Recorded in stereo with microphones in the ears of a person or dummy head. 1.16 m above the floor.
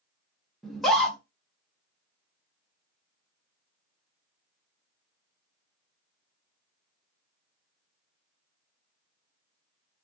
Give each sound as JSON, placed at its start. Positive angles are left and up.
{"t": 0.6, "sound": "a scream", "side_deg": 0, "distance_m": 0.8}